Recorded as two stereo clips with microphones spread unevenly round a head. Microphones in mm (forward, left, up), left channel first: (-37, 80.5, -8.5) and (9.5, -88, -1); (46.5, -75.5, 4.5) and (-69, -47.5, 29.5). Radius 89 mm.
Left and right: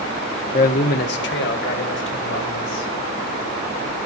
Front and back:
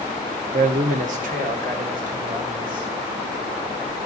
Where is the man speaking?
145° left, 0.5 m; by 2.9 s 120° left, 2.5 m.